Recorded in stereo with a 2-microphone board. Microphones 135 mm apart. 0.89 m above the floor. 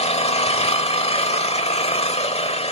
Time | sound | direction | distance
0.0 | an engine running | 45° left (ahead or behind) | 1.2 m